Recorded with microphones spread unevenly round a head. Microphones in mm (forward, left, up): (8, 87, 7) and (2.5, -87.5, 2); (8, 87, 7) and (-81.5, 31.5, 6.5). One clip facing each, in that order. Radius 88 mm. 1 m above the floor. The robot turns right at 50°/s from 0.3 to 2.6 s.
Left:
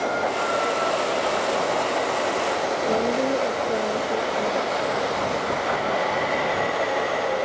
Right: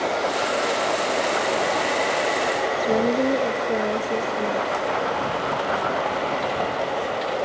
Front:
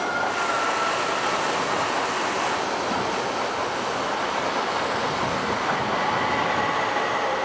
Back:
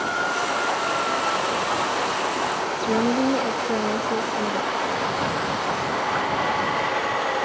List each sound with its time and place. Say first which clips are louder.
2.8 s a woman speaking: right 3 dB, back 4 dB; 165° right